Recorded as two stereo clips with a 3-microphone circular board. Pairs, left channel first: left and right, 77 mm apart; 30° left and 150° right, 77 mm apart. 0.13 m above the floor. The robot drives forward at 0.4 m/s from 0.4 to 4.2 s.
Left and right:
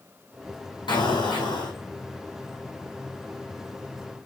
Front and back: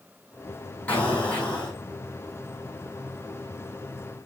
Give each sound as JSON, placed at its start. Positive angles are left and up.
{"t": 0.9, "sound": "an explosion", "azimuth_deg": 100, "distance_m": 3.0}